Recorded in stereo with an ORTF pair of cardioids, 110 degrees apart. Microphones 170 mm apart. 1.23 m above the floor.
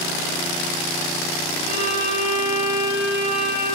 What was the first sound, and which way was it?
A violin, 50° right.